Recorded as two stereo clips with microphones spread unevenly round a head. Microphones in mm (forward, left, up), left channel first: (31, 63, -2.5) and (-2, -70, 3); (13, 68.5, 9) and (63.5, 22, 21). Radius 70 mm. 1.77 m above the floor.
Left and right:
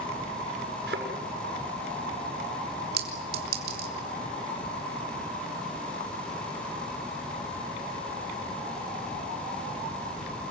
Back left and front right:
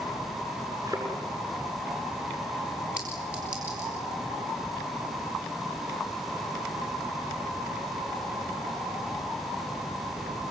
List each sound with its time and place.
0.9 s a thud: 110° right, 7 m
3.0 s a clink: 125° right, 3 m